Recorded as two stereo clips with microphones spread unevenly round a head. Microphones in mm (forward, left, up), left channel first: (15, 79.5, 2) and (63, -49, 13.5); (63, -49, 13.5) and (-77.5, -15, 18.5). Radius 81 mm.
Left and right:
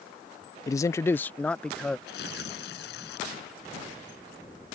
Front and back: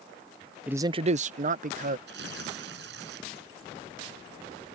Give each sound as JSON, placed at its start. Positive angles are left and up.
{"t": 0.7, "sound": "a man speaking", "azimuth_deg": 90}
{"t": 2.1, "sound": "tearing paper", "azimuth_deg": 140}